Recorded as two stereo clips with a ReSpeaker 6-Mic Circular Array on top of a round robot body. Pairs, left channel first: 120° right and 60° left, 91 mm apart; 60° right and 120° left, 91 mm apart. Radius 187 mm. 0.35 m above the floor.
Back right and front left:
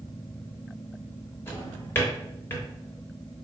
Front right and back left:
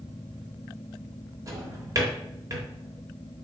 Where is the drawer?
170° left, 0.9 m.